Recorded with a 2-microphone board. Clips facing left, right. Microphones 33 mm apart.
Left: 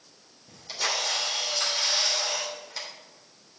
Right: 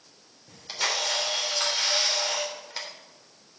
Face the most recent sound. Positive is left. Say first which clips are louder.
# right 1 dB
turn(degrees=-25)  # may be behind; listen again after turning